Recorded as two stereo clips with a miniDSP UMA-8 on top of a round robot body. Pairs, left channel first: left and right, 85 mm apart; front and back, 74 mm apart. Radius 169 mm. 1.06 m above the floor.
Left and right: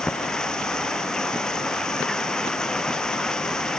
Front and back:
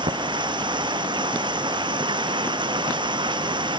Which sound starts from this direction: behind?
Running water, at 0.0 s.